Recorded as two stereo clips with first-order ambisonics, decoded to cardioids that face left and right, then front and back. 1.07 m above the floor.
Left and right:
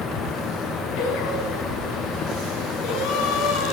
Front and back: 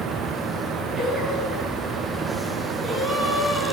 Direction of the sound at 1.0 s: 105° left.